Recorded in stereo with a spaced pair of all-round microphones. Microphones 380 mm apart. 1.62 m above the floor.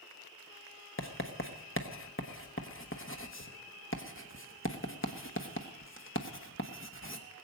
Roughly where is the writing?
Left.